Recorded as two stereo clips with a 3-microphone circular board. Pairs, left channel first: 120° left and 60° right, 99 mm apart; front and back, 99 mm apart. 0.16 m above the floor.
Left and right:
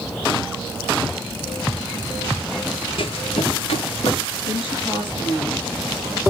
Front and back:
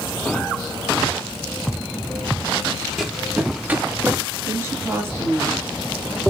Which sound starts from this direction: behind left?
A woman speaking, at 4.5 s.